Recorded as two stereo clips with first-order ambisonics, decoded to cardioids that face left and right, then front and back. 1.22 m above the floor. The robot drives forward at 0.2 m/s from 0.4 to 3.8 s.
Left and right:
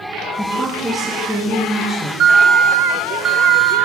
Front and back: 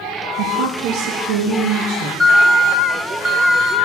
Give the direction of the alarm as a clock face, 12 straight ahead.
3 o'clock.